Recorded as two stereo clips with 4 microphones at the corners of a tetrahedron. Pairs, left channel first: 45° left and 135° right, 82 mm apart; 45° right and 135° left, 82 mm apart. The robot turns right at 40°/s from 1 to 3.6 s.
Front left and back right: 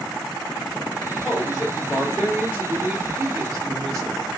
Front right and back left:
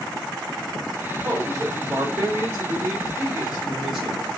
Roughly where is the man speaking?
Behind left.